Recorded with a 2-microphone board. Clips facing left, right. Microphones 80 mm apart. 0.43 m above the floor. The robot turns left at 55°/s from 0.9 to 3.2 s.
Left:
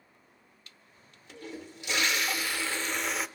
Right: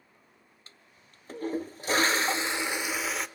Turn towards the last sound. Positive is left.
turn(degrees=180)